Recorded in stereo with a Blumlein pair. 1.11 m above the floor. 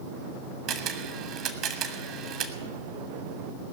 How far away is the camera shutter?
About 1.4 m.